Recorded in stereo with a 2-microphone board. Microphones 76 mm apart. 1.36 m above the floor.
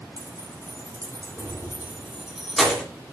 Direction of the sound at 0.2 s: 55° right (ahead or behind).